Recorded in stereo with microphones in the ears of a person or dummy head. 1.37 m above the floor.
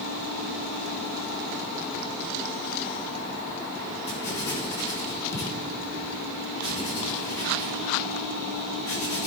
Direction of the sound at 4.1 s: 20° left (ahead or behind).